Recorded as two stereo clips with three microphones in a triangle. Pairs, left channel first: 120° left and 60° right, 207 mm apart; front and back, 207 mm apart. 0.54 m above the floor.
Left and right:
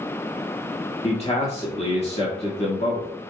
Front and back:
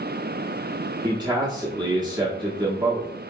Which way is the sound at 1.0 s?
130° left.